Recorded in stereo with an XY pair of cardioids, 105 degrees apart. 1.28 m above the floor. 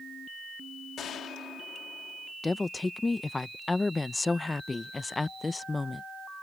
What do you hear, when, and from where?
1.0 s a gunshot: 70° left
2.4 s a woman speaking: 25° left